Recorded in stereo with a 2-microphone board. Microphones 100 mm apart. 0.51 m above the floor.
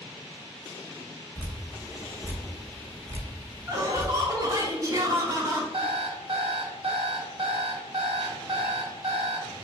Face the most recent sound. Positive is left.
turn(degrees=-65)  # may be behind; listen again after turning